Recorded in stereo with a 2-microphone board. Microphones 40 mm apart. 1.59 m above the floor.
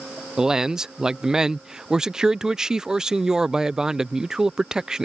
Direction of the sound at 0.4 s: 15° right (ahead or behind).